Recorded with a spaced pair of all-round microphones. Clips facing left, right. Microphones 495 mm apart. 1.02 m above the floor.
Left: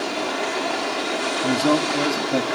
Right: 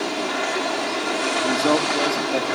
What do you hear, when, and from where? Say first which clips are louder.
1.4 s a man speaking: left 2 dB; 30° left (ahead or behind), 1.6 m; by 2.5 s 50° left (ahead or behind), 1.9 m